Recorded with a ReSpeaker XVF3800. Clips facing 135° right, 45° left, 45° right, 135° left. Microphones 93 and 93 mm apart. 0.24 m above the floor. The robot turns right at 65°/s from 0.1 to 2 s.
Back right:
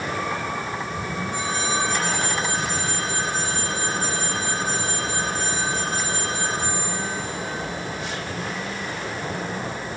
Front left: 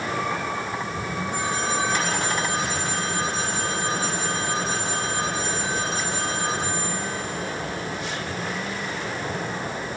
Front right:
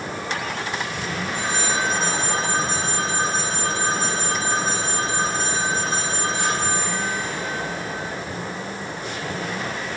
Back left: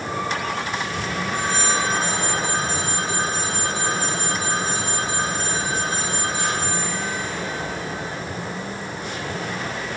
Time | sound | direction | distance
1.3 | a phone ringing | 10° left | 8.5 m